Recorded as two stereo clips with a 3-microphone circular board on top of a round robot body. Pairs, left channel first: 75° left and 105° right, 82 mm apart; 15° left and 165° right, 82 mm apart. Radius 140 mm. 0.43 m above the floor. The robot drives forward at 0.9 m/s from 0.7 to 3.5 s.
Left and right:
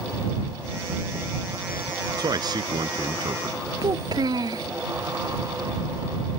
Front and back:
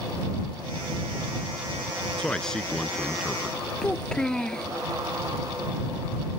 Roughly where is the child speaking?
Ahead right.